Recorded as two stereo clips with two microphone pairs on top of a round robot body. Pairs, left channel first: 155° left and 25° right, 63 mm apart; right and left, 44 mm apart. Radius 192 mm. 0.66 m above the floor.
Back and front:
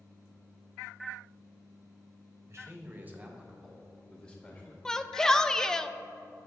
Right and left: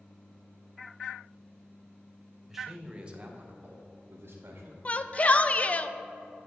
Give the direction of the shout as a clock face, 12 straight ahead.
4 o'clock.